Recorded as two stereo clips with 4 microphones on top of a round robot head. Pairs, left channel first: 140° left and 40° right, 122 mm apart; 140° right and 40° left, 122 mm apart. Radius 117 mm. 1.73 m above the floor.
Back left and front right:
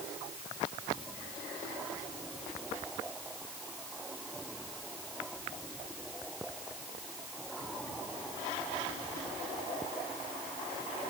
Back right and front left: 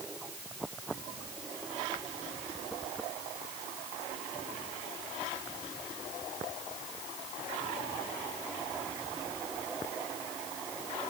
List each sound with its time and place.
Only background noise.